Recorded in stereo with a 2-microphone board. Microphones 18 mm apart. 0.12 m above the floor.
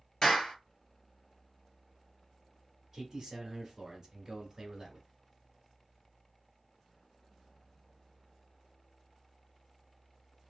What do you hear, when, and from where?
0.2 s a clap: 25° left (ahead or behind), 2.0 m
2.9 s a man speaking: 10° right (ahead or behind), 1.2 m